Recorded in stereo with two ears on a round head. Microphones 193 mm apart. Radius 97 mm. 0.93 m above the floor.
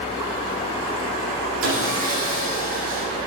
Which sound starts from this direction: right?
Sawing, at 1.6 s.